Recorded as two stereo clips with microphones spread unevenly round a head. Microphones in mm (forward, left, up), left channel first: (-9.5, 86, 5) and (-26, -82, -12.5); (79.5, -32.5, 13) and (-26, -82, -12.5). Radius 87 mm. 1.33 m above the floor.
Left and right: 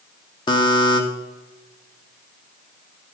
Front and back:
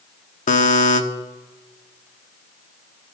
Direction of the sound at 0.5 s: 15° left.